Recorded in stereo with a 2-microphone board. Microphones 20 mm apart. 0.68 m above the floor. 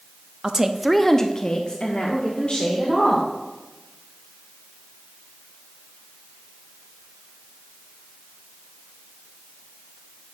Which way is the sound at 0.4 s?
30° right (ahead or behind).